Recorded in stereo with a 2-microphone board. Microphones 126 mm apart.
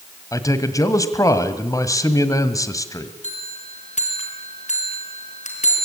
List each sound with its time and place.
0.3 s a man speaking: 25° left (ahead or behind), 1.6 m
3.2 s a bell: 65° left (ahead or behind), 4 m